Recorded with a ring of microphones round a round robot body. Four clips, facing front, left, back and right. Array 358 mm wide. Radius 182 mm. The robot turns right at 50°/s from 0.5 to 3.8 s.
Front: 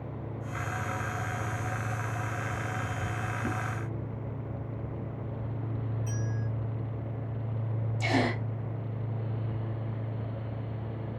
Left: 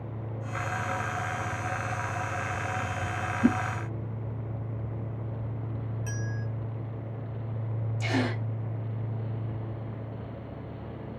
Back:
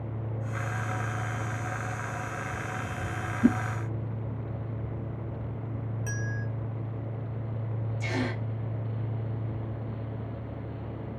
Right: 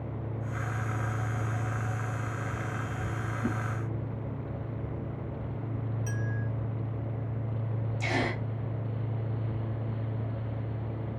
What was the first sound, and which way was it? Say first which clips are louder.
A whoosh: left 10 dB, back 14 dB; 140° left.